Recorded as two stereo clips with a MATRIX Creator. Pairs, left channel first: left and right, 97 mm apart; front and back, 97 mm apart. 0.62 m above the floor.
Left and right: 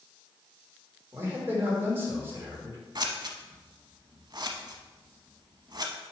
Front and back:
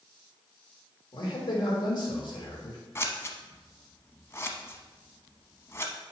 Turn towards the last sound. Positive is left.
turn(degrees=-60)